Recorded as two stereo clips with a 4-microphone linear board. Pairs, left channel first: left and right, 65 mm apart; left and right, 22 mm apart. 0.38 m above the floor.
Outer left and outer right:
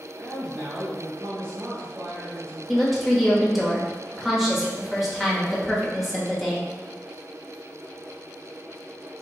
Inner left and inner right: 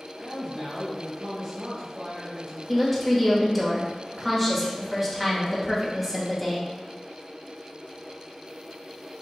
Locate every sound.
0.2 s a man speaking: 35° right (ahead or behind), 1.1 m
2.7 s a woman speaking: centre (ahead or behind), 1.1 m